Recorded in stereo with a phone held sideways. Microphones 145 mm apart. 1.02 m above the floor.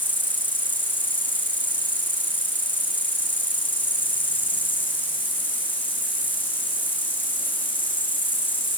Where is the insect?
10° left (ahead or behind), 4.5 m.